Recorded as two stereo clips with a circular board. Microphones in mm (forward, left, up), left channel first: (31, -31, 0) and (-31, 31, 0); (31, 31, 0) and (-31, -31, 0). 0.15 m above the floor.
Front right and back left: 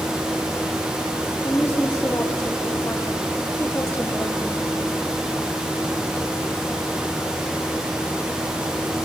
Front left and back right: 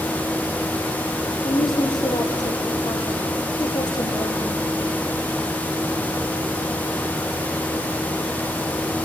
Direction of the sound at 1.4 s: 20° left.